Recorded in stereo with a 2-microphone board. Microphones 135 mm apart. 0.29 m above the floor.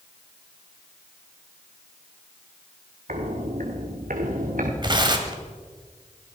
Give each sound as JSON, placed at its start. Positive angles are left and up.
{"t": 3.1, "sound": "footsteps", "side_deg": -70, "distance_m": 2.5}
{"t": 4.8, "sound": "tearing paper", "side_deg": -35, "distance_m": 1.4}